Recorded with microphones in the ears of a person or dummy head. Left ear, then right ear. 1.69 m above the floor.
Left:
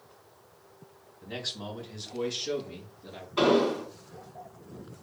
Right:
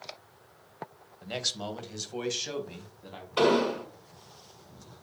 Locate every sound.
1.2 s a man speaking: 80° right, 0.9 m; by 3.3 s 45° right (ahead or behind), 1.5 m
3.4 s an explosion: 50° right (ahead or behind), 2.5 m